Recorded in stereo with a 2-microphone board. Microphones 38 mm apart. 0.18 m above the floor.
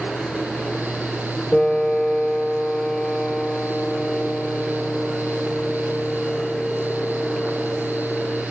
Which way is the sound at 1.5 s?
35° left (ahead or behind).